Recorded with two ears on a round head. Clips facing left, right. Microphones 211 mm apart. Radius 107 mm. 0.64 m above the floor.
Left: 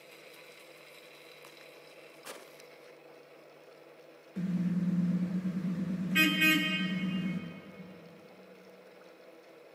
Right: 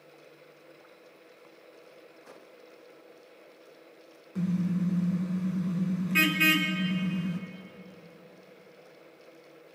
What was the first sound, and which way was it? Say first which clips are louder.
A car horn: right 3 dB; 75° right (ahead or behind).